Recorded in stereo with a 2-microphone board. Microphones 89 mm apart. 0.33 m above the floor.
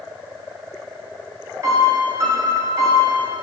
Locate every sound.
1.6 s a piano: 40° right (ahead or behind), 2 m